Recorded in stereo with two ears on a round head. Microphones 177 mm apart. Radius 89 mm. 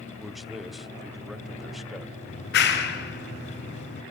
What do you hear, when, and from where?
0.2 s a man speaking: centre (ahead or behind), 1.7 m
2.3 s a clap: 60° left (ahead or behind), 5.5 m